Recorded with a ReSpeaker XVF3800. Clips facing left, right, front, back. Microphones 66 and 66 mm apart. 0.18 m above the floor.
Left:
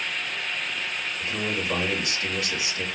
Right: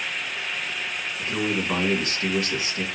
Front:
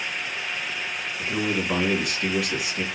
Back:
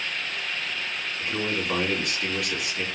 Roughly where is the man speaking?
Right.